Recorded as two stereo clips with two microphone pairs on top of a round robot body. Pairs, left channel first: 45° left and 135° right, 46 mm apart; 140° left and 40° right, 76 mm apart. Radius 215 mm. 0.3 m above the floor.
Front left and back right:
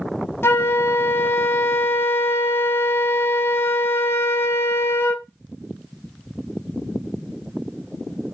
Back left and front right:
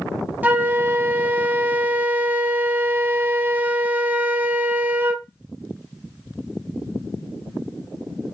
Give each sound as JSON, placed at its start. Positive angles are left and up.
{"t": 0.4, "sound": "a flute", "azimuth_deg": 20, "distance_m": 0.7}